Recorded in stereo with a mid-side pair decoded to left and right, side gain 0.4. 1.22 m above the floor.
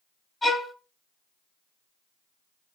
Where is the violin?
25° left, 1.2 m.